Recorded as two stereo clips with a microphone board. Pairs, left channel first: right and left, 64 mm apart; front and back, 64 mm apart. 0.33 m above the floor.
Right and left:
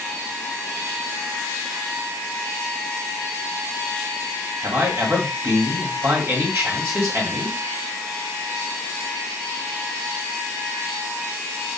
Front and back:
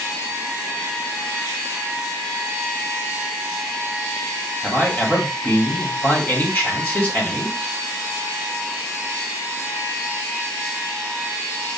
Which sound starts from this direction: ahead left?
A man speaking, at 4.6 s.